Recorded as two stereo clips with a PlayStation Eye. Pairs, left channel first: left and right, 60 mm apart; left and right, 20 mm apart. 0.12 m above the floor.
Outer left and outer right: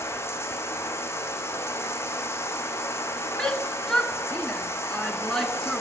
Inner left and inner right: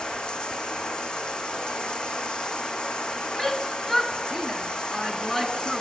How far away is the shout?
About 1.2 m.